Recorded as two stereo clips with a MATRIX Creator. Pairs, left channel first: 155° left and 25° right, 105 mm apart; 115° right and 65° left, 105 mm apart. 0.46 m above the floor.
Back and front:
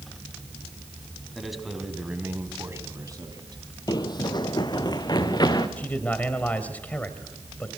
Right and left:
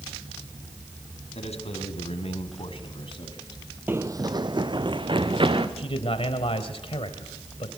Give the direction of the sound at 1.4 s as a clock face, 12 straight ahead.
4 o'clock.